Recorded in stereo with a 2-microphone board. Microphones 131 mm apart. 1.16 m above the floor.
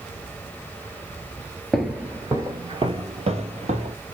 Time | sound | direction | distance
1.7 | footsteps | centre (ahead or behind) | 1.1 m